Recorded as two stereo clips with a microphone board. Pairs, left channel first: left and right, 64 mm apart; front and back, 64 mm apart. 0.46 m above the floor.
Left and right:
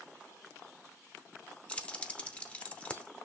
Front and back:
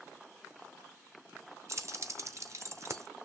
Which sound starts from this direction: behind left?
Keys jangling, at 1.7 s.